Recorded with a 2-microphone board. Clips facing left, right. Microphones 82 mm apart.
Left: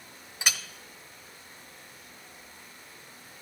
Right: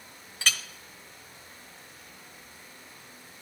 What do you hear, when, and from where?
0.4 s a clink: 15° left (ahead or behind), 0.6 m